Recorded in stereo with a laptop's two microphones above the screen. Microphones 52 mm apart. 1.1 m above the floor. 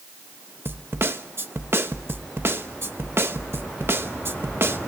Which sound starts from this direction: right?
A snare drum, at 0.7 s.